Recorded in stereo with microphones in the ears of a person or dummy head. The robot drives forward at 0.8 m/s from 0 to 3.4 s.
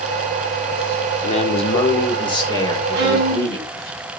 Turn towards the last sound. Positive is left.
turn(degrees=-60)  # may be behind; listen again after turning